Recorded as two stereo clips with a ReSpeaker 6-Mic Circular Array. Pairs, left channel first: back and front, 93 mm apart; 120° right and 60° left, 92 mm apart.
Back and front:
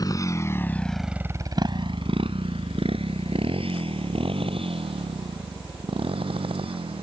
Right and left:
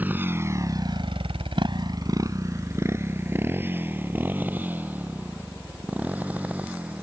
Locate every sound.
0.0 s a motorcycle: 130° left; by 7.0 s 15° right